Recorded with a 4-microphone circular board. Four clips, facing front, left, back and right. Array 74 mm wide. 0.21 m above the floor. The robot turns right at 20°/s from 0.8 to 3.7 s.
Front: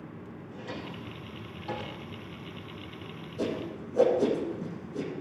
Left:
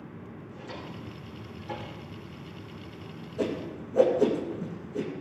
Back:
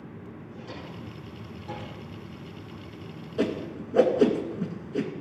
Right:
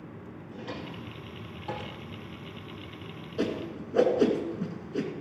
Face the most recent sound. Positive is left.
turn(degrees=-145)